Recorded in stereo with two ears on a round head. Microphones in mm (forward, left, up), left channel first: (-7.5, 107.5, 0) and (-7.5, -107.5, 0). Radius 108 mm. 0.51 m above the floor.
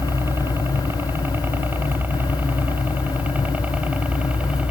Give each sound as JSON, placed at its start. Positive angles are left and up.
{"t": 0.0, "sound": "a helicopter", "side_deg": -10}